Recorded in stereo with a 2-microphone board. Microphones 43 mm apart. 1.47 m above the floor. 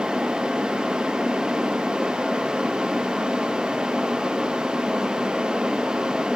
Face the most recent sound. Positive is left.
No sound to turn to.